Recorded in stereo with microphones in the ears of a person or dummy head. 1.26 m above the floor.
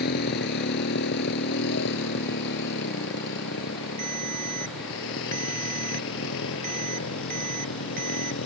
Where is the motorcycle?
55° left (ahead or behind); by 8.5 s 75° left (ahead or behind).